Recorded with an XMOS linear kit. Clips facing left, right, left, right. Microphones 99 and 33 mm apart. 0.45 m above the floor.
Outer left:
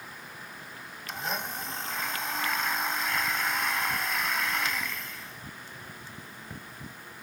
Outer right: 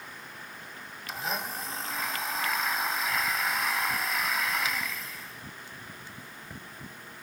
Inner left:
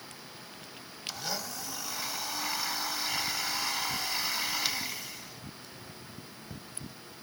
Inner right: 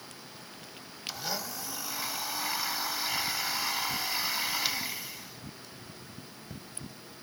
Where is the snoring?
No snoring in this recording.